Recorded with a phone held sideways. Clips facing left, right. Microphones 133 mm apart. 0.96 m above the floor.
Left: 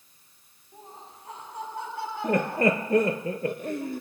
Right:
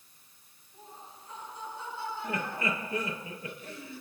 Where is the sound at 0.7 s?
85° left, 8 m.